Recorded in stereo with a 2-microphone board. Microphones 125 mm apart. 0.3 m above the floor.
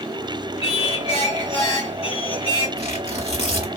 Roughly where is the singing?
Left.